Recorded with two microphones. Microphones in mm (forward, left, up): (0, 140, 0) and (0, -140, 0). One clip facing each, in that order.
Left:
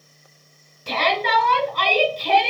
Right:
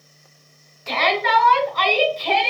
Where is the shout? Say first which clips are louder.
Right 1 dB; 40° left (ahead or behind), 1.6 m.